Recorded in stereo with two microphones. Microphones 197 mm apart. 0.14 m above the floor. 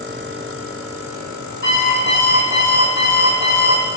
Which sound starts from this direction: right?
An alarm clock, at 1.6 s.